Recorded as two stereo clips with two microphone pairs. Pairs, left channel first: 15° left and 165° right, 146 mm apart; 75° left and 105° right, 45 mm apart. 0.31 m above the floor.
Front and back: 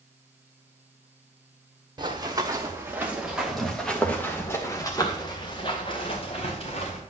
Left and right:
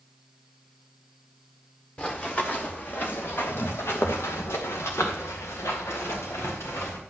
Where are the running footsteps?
135° left, 2.5 m; by 7.0 s 55° left, 3.5 m.